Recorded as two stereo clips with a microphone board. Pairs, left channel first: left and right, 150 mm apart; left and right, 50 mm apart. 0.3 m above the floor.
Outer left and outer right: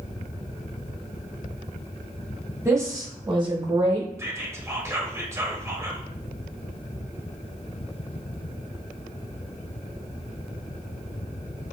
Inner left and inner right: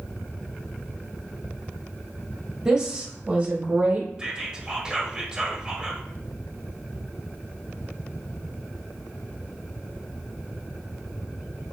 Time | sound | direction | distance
2.6 | a woman speaking | 15° right (ahead or behind) | 1.5 m
4.2 | whispering | 20° right (ahead or behind) | 0.9 m